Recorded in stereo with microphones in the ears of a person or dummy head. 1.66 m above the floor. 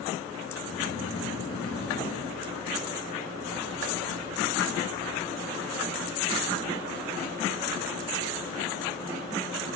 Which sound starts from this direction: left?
Snoring, at 0.5 s.